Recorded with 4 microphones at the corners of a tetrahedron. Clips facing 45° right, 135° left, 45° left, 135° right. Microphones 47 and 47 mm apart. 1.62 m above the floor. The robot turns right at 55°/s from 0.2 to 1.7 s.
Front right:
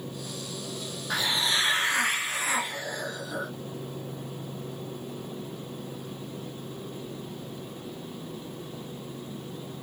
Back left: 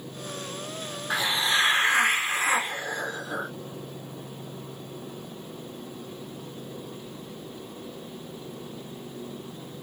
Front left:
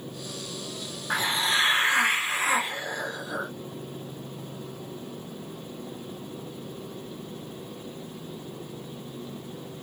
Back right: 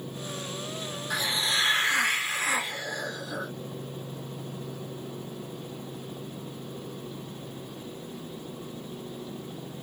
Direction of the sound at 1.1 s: 70° left.